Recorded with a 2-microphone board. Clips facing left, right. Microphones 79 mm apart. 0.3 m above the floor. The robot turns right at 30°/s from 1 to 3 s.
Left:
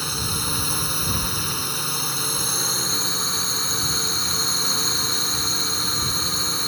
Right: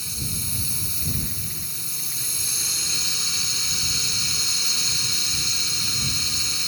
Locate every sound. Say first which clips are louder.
0.0 s a drone: left 8 dB; 75° left; by 6.7 s 135° left